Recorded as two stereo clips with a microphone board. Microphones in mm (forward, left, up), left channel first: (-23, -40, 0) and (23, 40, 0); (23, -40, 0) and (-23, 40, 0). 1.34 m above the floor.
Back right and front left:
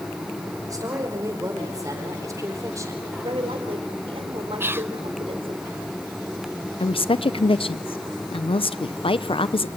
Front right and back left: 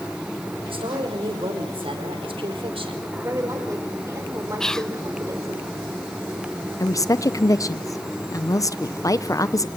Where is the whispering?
20° left, 0.5 m.